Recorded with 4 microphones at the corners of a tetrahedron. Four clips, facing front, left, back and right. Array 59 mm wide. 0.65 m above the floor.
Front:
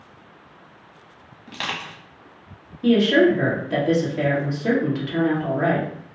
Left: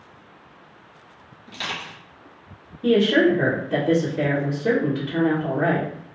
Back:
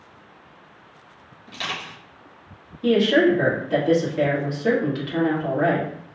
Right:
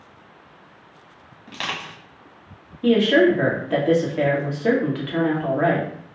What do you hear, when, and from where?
1.5 s crushing: 45° right, 1.1 m
2.8 s a woman speaking: 80° right, 1.3 m